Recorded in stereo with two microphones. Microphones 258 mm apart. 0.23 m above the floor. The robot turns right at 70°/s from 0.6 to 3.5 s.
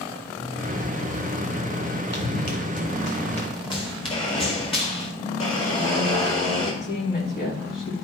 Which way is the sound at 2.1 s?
70° left (ahead or behind).